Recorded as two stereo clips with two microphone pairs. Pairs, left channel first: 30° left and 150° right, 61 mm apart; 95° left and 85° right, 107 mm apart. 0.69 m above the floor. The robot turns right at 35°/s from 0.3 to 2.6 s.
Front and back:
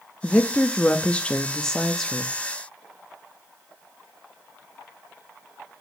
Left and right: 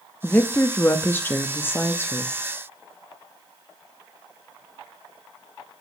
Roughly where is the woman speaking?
Ahead left.